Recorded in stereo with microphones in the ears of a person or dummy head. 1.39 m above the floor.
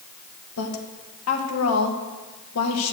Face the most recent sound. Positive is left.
turn(degrees=85)